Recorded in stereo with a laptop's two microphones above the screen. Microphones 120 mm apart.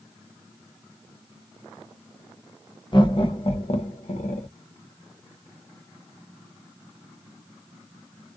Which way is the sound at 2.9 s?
40° left (ahead or behind).